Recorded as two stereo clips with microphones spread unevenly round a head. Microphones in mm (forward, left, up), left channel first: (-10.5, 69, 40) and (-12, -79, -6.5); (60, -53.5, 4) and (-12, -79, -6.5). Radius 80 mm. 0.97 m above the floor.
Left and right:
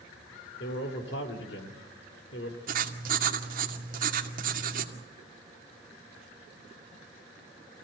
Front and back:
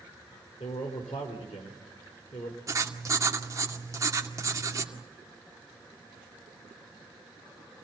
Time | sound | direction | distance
0.6 | a man speaking | 65° left | 3.5 m
2.7 | writing | 115° right | 2.5 m